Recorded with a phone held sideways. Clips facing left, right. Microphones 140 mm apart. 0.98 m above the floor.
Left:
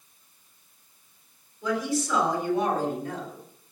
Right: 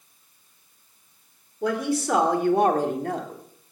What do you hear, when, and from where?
1.6 s a woman speaking: 65° right (ahead or behind), 3.5 m; by 3.4 s 70° right (ahead or behind), 2.5 m